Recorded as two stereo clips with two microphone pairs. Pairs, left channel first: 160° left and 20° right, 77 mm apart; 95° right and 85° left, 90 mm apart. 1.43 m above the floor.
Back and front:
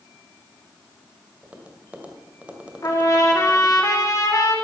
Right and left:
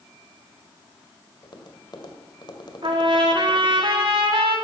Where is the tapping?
90° right, 1.8 m.